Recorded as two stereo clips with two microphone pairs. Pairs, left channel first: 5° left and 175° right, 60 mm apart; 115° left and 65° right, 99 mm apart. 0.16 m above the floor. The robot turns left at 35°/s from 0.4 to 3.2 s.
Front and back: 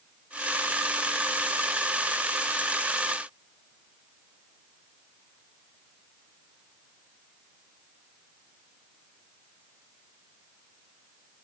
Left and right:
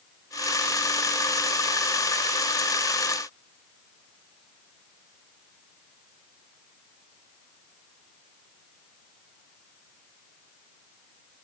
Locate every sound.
Only background noise.